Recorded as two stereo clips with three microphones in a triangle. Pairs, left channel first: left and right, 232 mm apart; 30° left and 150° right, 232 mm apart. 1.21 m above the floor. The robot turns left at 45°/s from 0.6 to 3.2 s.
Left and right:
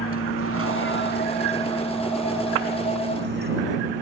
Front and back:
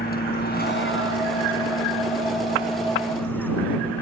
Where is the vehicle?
80° left; by 4.0 s 55° right.